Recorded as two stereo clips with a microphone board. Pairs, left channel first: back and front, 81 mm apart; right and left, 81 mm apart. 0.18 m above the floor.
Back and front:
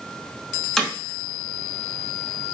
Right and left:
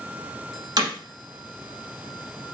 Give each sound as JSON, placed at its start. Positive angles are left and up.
{"t": 0.8, "sound": "hammering", "azimuth_deg": 100, "distance_m": 1.2}